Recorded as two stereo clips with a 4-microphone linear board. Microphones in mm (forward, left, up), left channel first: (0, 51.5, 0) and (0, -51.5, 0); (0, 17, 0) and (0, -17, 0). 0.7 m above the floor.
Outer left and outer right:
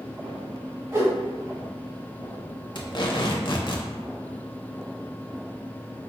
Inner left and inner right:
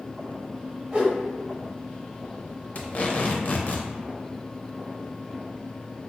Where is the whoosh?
25° right (ahead or behind), 1.2 m.